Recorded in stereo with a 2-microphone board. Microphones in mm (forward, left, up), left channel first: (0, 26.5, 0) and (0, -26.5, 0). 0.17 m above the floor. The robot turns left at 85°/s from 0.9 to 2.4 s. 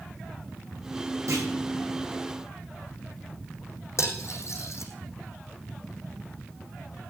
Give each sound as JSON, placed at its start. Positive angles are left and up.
{"t": 1.3, "sound": "a clunk", "side_deg": -75, "distance_m": 8.5}
{"t": 4.0, "sound": "cutlery clinking", "side_deg": 60, "distance_m": 5.0}